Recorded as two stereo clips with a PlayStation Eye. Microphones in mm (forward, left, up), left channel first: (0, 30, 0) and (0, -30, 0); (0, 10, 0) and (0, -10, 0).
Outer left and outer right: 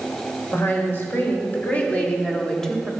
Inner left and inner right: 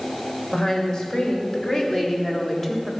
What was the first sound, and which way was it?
A woman speaking, 45° left (ahead or behind).